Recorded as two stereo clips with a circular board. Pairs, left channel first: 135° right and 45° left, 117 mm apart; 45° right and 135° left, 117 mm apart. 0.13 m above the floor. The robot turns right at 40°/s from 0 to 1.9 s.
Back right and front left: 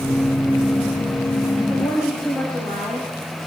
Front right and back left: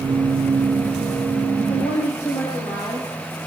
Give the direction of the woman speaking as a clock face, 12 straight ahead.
3 o'clock.